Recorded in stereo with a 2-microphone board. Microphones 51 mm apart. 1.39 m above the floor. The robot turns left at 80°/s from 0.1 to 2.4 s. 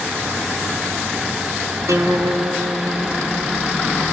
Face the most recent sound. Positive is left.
turn(degrees=-130)